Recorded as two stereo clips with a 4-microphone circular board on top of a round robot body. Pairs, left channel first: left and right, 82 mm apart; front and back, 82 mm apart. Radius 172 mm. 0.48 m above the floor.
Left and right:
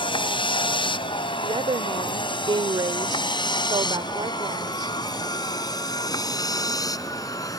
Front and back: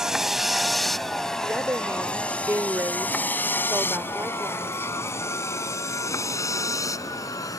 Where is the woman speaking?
115° right.